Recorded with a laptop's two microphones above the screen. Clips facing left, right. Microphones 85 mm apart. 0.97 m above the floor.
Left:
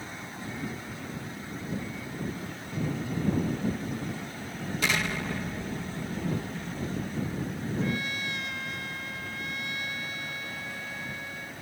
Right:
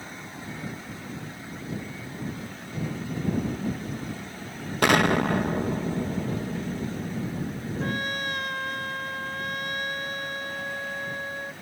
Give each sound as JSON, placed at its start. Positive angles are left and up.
{"t": 4.8, "sound": "an explosion", "side_deg": -60}
{"t": 7.8, "sound": "a trumpet", "side_deg": -50}